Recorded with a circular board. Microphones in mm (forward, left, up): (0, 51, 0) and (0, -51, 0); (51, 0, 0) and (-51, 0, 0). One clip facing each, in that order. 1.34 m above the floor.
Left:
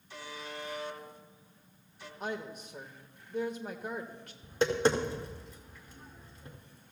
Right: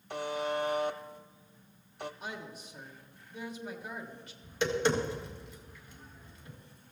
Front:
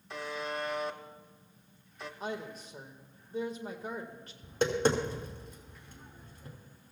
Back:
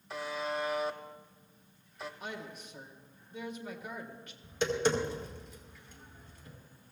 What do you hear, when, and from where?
0.1 s a buzzer: 95° right, 0.8 m
2.2 s a woman speaking: 55° left, 1.6 m
4.4 s tapping: 40° left, 1.9 m